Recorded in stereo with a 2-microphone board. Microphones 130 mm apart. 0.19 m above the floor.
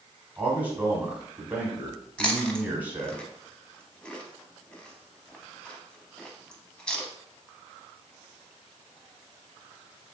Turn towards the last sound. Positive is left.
turn(degrees=10)  # may be behind; listen again after turning